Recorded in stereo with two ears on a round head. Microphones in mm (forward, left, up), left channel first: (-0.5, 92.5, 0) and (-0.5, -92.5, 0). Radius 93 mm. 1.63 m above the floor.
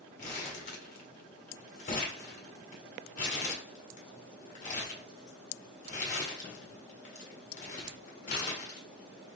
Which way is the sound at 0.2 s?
40° left (ahead or behind).